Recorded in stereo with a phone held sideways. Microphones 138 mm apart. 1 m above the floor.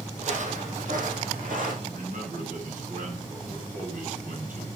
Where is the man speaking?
80° right, 7 m.